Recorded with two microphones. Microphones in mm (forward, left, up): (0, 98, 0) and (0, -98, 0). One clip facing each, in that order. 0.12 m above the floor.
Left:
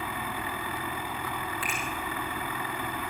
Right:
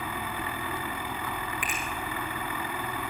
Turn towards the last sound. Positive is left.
turn(degrees=-15)  # may be behind; listen again after turning